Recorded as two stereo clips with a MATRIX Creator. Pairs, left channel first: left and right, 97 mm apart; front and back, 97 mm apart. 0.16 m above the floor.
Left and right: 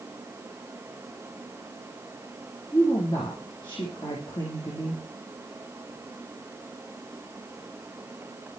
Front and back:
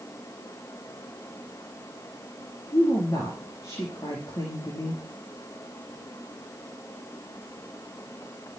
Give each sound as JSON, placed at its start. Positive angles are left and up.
{"t": 2.7, "sound": "a woman speaking", "azimuth_deg": 55, "distance_m": 4.0}